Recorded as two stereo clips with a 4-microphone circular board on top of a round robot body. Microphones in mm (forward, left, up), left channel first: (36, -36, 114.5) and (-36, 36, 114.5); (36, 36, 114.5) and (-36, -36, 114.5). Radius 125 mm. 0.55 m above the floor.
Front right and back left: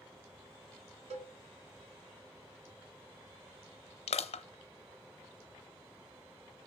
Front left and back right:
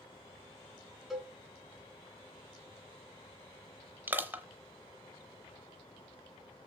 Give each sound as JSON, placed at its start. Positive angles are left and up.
{"t": 1.1, "sound": "a cowbell", "azimuth_deg": 135, "distance_m": 1.8}
{"t": 4.1, "sound": "crushing", "azimuth_deg": -65, "distance_m": 0.8}